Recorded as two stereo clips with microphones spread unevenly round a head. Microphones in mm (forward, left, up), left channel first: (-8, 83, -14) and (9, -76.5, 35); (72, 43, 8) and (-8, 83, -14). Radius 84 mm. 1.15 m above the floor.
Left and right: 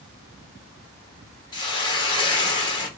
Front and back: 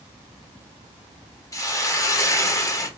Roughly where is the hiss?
Ahead left.